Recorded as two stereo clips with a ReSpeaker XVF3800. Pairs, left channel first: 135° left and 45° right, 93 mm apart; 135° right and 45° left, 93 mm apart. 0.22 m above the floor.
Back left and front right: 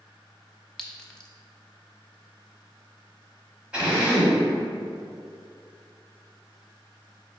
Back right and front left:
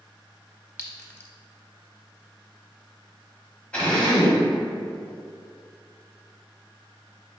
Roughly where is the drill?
Right.